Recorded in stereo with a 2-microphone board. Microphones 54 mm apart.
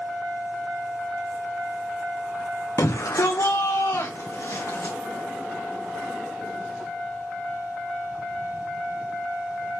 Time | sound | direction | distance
2.8 | a shout | 65° left (ahead or behind) | 1.0 m